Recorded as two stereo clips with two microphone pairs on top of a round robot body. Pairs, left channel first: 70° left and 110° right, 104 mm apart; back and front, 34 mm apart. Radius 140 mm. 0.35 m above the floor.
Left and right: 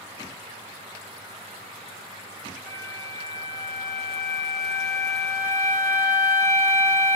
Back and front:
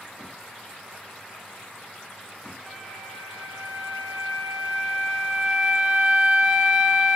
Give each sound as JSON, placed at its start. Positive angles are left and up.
{"t": 2.7, "sound": "a flute", "azimuth_deg": 45, "distance_m": 1.5}